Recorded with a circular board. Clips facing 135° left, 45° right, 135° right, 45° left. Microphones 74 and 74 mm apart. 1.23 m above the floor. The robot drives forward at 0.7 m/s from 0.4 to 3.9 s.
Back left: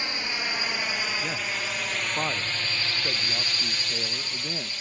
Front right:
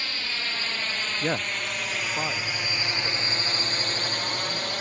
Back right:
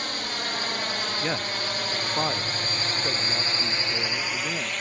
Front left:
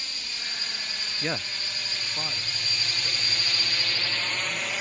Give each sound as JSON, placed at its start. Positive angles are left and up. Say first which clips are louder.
{"t": 0.0, "sound": "a drone", "louder": "back left 2 dB, back right 9 dB", "azimuth_deg": -160}
{"t": 1.2, "sound": "a man speaking", "louder": "front right 3 dB, front left 1 dB", "azimuth_deg": -50}